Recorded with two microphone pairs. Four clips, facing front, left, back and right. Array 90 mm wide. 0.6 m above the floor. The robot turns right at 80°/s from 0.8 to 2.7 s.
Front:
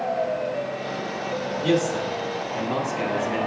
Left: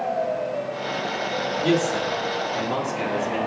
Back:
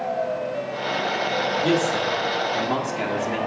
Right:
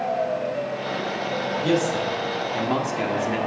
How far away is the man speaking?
About 1.5 m.